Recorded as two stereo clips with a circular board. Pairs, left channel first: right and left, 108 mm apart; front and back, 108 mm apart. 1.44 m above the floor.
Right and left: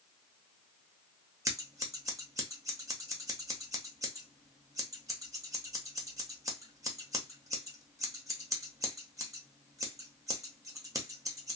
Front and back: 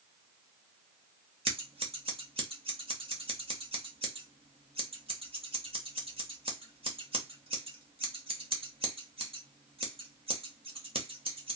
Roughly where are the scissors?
Behind left.